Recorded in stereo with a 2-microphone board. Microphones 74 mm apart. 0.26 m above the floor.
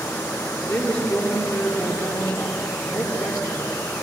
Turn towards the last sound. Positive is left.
turn(degrees=15)  # may be behind; listen again after turning